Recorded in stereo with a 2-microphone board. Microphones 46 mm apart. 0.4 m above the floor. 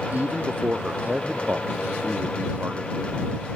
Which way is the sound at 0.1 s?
35° right (ahead or behind).